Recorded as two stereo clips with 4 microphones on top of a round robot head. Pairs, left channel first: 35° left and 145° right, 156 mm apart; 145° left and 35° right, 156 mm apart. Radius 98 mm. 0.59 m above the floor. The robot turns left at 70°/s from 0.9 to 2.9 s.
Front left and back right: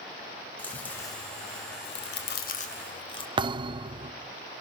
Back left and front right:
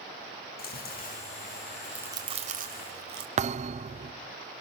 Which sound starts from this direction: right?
A thud, at 3.4 s.